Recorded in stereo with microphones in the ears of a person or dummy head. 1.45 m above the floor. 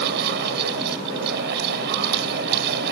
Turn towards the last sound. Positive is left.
turn(degrees=-60)  # may be behind; listen again after turning